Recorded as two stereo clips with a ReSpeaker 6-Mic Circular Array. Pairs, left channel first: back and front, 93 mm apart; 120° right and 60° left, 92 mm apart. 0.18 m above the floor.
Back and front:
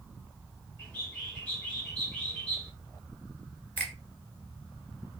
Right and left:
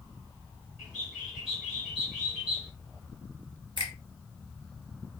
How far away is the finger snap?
About 1.3 m.